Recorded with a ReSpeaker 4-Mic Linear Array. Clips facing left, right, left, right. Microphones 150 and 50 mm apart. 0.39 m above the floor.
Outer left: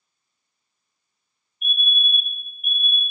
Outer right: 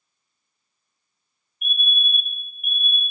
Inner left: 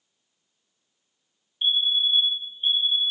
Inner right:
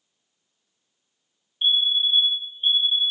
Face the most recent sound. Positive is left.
turn(degrees=-15)  # may be behind; listen again after turning